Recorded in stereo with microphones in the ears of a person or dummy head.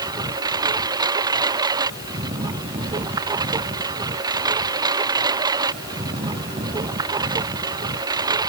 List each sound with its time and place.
0.0 s a lawn mower: 20° right (ahead or behind)